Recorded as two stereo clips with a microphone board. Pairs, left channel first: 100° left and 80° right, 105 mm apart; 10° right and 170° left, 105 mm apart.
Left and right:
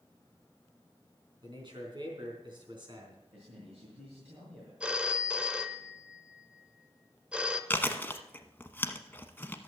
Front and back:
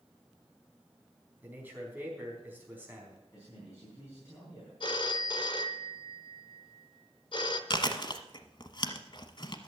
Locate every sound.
1.4 s a man speaking: 120° right, 4 m
3.3 s a man speaking: 75° right, 5 m
4.8 s a phone ringing: straight ahead, 0.8 m
7.7 s chewing: 30° left, 0.9 m